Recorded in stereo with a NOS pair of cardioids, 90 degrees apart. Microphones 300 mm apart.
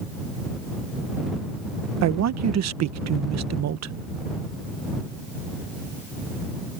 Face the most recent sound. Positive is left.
turn(degrees=-60)